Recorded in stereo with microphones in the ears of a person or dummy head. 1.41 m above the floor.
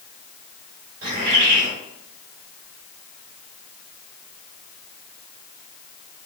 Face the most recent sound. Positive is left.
turn(degrees=-55)  # may be behind; listen again after turning